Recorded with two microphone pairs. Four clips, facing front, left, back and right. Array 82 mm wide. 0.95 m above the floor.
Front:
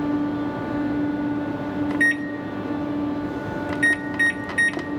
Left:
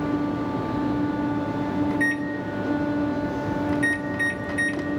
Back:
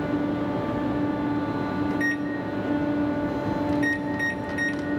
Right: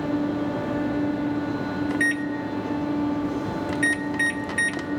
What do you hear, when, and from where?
1.9 s a microwave: 25° right, 1.4 m